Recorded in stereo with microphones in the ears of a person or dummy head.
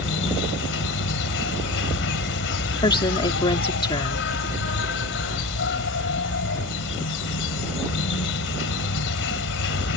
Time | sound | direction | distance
0.0 | an insect | 70° left (ahead or behind) | ?
2.8 | a woman speaking | 25° left (ahead or behind) | ?